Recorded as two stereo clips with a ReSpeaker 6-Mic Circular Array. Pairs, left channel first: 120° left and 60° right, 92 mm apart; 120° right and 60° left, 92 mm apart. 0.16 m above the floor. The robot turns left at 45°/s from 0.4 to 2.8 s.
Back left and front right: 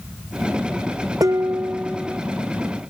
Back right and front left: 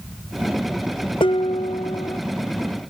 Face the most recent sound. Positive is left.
turn(degrees=-175)